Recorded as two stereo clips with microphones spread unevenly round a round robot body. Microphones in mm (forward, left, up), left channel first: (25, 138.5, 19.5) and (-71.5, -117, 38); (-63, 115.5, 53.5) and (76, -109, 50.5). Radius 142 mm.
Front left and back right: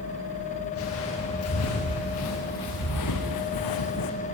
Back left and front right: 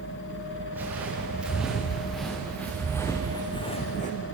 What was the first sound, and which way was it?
Footsteps, 25° left.